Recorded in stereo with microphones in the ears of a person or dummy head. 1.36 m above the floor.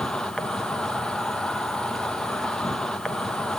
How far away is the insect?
About 0.7 m.